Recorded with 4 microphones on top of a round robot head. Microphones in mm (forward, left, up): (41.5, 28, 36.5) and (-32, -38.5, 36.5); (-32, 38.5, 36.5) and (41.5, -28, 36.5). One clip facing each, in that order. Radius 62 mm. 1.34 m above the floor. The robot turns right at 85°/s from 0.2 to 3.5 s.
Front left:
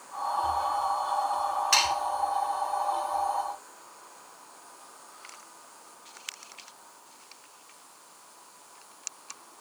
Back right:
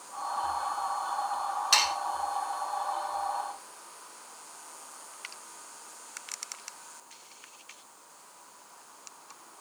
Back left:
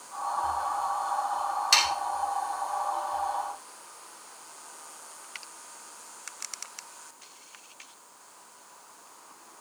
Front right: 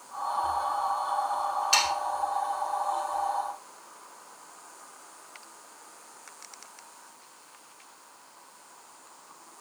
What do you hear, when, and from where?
1.7 s sawing: 150° left, 3 m; by 1.9 s 160° left, 3 m